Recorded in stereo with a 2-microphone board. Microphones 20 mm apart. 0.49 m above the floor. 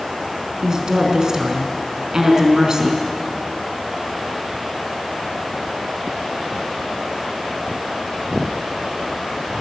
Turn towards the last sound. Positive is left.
turn(degrees=-35)  # may be behind; listen again after turning